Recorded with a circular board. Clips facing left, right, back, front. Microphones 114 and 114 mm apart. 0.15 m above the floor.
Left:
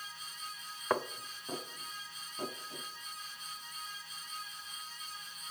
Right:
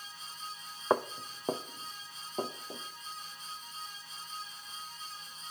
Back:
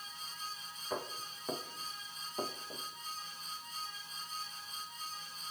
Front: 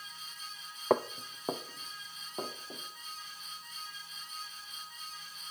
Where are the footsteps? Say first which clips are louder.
Right 4 dB, front 11 dB; 20° right, 0.6 m; by 2.8 s 75° right, 3.5 m.